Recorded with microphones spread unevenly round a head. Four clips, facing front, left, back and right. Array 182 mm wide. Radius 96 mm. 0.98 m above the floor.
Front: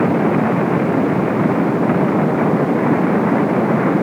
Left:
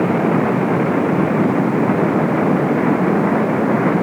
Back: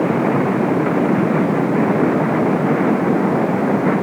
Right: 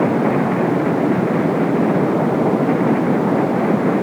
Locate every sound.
Only background noise.